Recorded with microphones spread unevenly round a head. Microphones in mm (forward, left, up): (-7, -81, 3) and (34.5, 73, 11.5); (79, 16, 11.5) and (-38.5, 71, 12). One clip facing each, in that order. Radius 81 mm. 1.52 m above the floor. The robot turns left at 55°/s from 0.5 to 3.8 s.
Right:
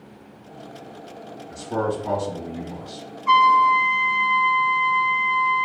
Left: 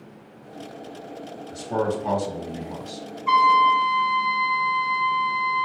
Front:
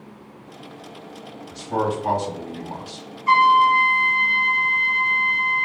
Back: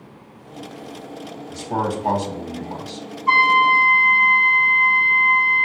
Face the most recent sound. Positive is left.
turn(degrees=-35)